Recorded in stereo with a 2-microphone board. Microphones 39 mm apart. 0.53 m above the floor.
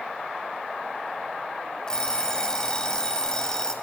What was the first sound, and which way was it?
An alarm clock, 20° left (ahead or behind).